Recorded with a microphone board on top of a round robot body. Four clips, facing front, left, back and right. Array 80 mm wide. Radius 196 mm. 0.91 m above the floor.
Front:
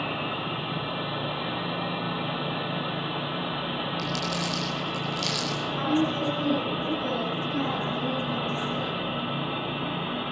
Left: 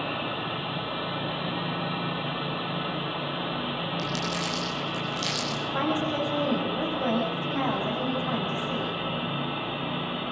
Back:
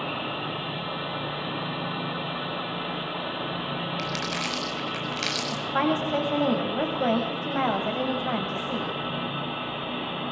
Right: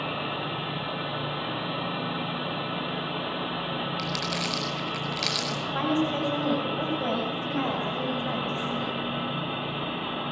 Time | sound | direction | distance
4.0 | crumpling | 160° right | 6.5 m
5.5 | a woman speaking | straight behind | 7.5 m